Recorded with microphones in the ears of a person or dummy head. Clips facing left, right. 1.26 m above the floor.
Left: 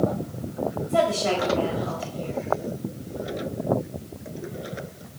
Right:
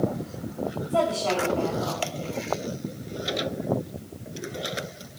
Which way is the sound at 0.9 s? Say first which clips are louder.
Left 2 dB; 30° left (ahead or behind).